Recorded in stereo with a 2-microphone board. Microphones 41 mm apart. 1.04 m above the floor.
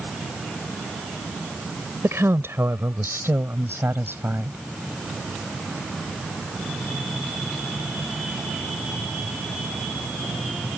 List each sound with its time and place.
2.0 s a woman speaking: 80° right; by 4.6 s 60° right (ahead or behind)